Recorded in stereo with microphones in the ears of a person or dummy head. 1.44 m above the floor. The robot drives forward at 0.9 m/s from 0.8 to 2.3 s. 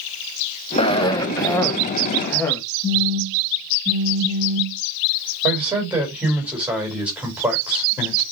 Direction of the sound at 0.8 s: 30° left (ahead or behind).